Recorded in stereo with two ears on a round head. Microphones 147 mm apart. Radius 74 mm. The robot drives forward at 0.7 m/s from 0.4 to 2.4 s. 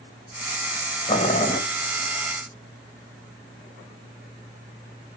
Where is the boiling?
35° left (ahead or behind), 3.5 m; by 1.6 s 30° left (ahead or behind), 3.5 m.